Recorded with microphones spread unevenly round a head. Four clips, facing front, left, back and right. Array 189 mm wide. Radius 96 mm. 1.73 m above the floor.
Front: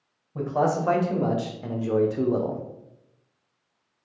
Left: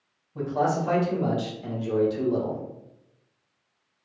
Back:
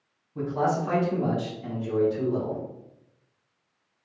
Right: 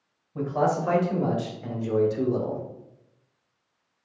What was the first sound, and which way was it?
A man speaking, 10° right.